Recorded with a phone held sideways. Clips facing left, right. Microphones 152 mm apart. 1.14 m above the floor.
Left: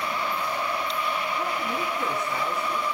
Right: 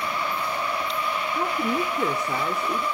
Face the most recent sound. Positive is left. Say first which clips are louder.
# right 4 dB
turn(degrees=-80)